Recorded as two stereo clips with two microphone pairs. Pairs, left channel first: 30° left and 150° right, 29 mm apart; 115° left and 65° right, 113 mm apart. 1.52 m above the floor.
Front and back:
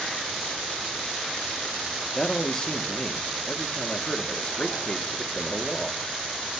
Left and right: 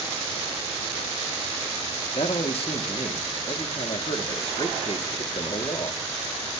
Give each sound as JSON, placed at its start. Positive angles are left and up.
{"t": 2.1, "sound": "a man speaking", "azimuth_deg": 90, "distance_m": 1.1}